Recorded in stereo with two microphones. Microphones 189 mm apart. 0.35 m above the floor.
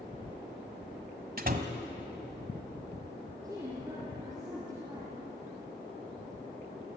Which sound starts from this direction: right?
A door slam, at 1.4 s.